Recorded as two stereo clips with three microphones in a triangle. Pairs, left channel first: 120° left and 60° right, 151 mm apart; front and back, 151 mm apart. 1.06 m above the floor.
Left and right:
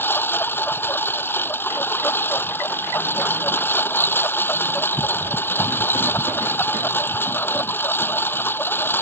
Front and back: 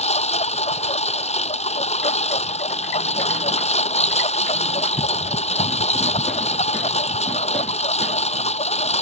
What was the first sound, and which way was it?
A lawn mower, 45° left.